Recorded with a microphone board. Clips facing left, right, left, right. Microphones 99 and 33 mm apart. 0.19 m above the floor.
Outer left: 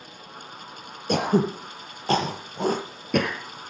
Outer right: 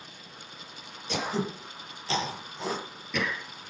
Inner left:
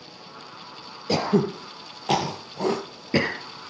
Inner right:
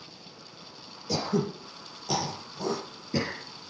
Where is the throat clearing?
50° left (ahead or behind), 4 m.